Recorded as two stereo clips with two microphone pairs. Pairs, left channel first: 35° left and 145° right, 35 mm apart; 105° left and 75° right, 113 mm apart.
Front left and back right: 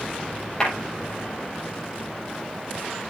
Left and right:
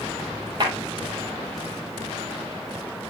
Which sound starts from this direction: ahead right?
A clap, at 0.6 s.